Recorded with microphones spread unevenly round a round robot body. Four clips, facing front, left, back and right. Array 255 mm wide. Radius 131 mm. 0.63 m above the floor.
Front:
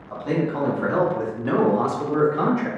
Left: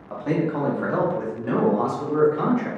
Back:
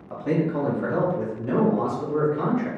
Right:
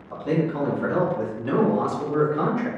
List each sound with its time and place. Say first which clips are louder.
0.1 s a man speaking: even, even; 110° left, 1.1 m; by 2.7 s straight ahead, 1.5 m